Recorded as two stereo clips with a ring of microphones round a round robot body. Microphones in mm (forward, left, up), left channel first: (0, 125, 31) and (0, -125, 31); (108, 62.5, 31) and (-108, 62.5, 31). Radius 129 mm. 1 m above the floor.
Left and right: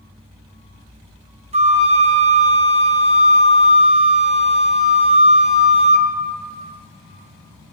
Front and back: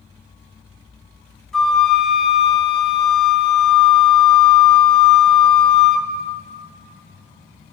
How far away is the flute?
About 0.5 m.